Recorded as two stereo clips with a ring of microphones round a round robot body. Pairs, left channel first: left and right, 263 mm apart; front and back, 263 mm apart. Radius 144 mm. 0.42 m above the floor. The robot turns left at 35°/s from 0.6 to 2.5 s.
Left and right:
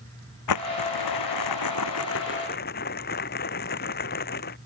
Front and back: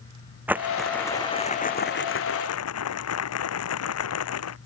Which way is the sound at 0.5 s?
95° left.